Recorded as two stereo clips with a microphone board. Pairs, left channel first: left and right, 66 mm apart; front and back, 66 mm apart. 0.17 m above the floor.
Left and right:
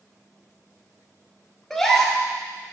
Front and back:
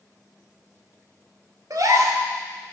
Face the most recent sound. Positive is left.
turn(degrees=175)